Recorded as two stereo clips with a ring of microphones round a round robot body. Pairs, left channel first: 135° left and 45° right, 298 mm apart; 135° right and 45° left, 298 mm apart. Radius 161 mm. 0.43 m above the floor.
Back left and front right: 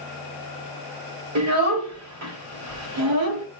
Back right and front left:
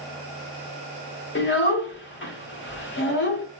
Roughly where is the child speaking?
Right.